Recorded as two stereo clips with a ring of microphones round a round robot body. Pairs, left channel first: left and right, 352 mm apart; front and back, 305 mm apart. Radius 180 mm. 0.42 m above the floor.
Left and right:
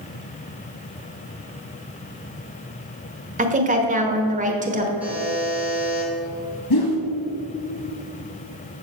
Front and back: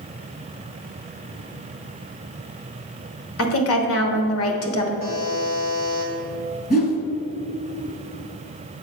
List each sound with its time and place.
3.4 s a woman speaking: 25° right, 1.2 m
5.0 s a buzzer: 5° right, 2 m
6.7 s a whoosh: 60° left, 2.0 m